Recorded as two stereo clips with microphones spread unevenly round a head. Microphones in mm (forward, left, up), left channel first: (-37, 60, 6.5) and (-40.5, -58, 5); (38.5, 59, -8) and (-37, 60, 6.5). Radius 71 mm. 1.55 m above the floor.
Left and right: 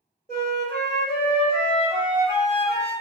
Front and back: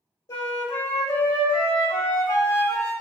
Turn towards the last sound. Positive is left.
turn(degrees=10)